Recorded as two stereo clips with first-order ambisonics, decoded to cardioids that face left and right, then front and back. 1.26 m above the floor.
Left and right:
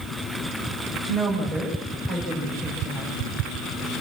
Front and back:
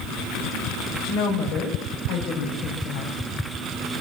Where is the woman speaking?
25° left, 6 m.